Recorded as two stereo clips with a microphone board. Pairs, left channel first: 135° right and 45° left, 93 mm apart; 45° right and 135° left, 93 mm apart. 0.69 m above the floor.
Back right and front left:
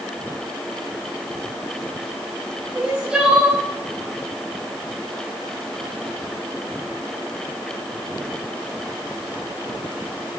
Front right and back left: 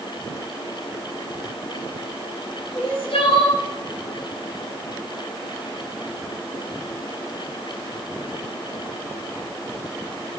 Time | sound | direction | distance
2.7 | crying | 35° right | 3.5 m